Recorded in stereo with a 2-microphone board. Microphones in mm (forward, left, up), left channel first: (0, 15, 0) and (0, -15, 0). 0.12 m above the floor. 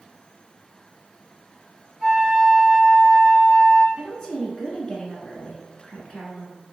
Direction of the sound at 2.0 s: Centre (ahead or behind).